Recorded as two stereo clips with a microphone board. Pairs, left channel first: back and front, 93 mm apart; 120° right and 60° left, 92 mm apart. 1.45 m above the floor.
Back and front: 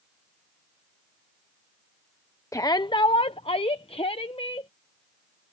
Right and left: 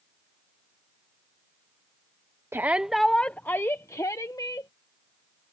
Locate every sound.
2.5 s a shout: 125° left; by 4.7 s 165° right